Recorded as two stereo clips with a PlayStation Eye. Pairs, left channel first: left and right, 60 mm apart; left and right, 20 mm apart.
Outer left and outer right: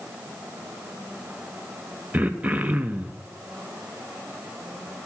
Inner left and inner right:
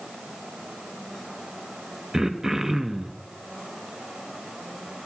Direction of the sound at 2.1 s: 25° right (ahead or behind).